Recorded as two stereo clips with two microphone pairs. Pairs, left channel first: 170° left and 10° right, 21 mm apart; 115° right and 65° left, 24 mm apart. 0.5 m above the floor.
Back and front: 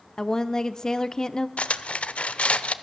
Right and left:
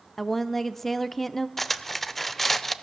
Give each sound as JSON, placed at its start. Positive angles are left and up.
{"t": 0.2, "sound": "a woman speaking", "azimuth_deg": 175, "distance_m": 0.7}
{"t": 1.6, "sound": "cutlery clinking", "azimuth_deg": 165, "distance_m": 0.7}